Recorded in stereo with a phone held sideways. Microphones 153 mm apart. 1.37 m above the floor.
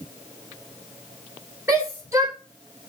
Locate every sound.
1.7 s a shout: 20° right (ahead or behind), 4 m